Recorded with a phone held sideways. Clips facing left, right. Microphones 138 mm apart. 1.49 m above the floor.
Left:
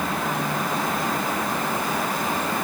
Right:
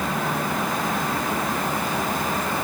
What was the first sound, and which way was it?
Only background noise.